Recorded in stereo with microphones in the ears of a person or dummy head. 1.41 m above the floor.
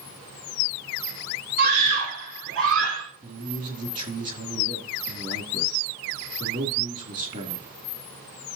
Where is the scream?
55° right (ahead or behind), 2.5 m; by 3.0 s 70° right (ahead or behind), 2.5 m.